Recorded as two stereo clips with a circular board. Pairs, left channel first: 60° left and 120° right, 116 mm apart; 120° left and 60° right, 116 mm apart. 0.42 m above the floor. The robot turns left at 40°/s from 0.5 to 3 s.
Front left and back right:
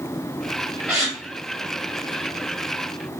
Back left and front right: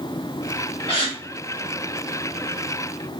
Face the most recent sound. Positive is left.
turn(degrees=70)